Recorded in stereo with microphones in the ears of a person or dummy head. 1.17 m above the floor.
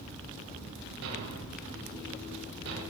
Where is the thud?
65° right (ahead or behind), 10 m.